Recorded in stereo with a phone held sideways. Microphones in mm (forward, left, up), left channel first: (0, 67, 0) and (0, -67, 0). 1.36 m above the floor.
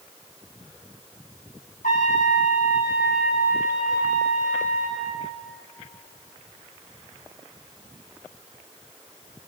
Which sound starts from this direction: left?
A trumpet, at 1.8 s.